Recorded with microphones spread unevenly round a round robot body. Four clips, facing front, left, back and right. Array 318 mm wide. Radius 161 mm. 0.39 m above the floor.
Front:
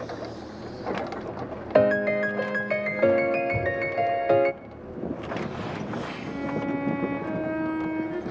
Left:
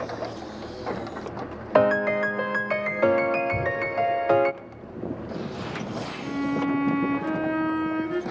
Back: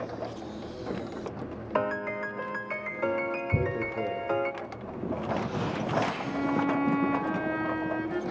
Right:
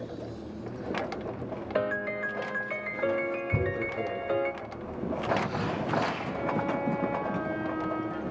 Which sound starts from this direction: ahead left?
A piano, at 1.8 s.